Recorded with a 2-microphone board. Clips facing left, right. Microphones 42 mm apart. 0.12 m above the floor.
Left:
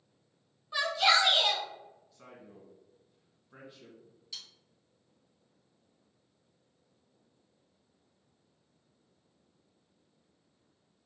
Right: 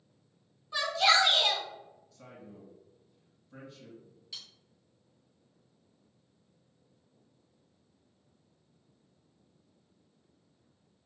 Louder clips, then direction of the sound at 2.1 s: Right 4 dB; 20° left (ahead or behind).